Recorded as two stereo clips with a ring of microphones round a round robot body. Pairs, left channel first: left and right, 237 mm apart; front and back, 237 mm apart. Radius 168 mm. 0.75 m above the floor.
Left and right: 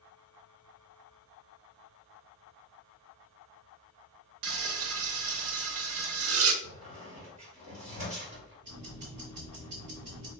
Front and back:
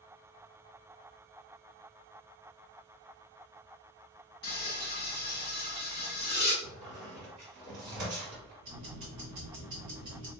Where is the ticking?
140° right, 0.8 m.